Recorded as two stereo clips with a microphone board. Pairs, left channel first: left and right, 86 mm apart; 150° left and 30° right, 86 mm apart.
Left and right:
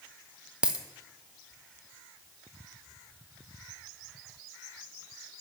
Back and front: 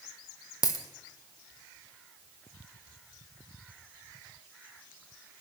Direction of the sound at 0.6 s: 170° right.